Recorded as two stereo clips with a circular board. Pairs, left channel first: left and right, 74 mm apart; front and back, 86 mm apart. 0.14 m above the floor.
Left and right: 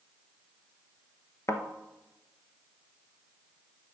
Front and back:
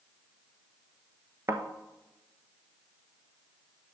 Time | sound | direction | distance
1.5 | a thud | 125° left | 0.8 m